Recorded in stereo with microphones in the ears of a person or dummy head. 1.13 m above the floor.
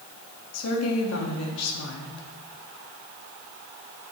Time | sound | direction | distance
0.5 | a woman speaking | 85° left | 1.6 m